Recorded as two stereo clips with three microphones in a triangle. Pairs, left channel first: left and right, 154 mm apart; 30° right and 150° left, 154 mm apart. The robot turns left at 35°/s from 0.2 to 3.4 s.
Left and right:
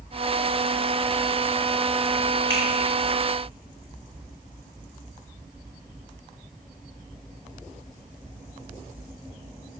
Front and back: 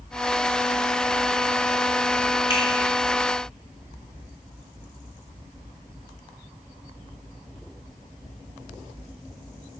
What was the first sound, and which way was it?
A finger snap, 15° left.